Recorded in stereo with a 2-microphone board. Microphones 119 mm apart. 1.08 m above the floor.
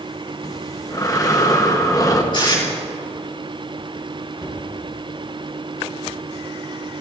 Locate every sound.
0.4 s breathing: 30° left (ahead or behind), 1.0 m
2.3 s tape being pulled: 40° left (ahead or behind), 5 m
4.4 s a cupboard door: 35° right (ahead or behind), 5 m